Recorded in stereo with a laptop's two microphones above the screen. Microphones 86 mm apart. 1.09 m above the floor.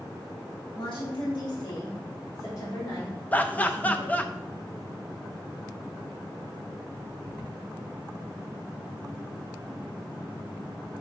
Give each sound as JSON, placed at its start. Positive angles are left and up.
{"t": 0.8, "sound": "a woman speaking", "side_deg": 75, "distance_m": 2.0}
{"t": 3.3, "sound": "laughter", "side_deg": 20, "distance_m": 0.5}